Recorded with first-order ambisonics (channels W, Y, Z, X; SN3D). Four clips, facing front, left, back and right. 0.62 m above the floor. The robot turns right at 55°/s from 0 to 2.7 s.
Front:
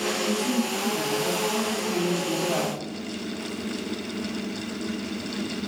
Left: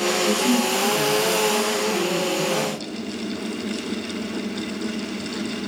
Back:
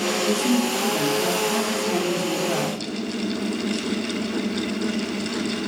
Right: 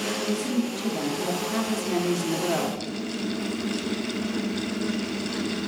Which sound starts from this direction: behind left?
A woman speaking, at 0.3 s.